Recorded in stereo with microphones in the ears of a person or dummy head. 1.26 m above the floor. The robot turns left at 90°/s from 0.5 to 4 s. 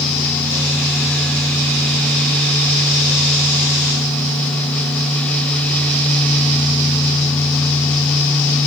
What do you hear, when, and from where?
Only background noise.